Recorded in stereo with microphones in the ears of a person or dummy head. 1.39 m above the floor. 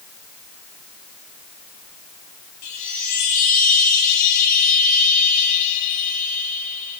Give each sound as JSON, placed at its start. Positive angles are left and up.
{"t": 2.6, "sound": "a chime", "side_deg": 45, "distance_m": 2.0}